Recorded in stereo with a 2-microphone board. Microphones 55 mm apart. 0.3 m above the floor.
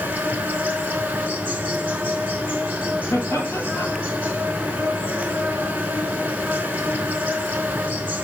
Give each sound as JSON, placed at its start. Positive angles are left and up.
{"t": 0.0, "sound": "an insect", "side_deg": -30, "distance_m": 0.9}
{"t": 3.1, "sound": "laughter", "side_deg": 60, "distance_m": 1.6}